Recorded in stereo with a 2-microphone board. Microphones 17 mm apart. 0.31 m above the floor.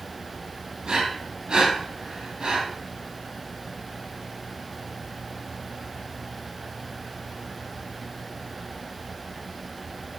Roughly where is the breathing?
Right.